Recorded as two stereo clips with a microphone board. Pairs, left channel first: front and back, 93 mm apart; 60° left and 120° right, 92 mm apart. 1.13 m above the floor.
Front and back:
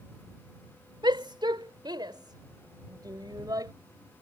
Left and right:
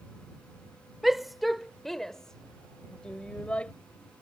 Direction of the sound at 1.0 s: 155° left.